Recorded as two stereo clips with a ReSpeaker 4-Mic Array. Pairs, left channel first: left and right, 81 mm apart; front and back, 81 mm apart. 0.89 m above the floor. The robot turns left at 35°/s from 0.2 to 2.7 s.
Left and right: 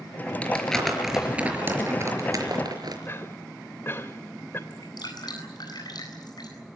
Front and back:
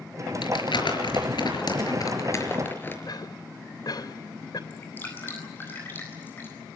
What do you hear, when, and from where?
0.4 s crumpling: 20° left, 5 m; by 3.0 s 60° right, 5 m
3.1 s a cough: 30° left, 3 m
4.7 s dripping: 65° left, 9 m